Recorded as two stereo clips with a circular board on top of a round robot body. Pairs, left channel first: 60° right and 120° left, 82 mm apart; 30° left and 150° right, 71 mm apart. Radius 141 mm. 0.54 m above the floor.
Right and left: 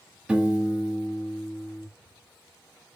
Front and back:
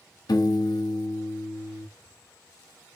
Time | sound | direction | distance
0.3 | a piano | 40° left | 0.6 m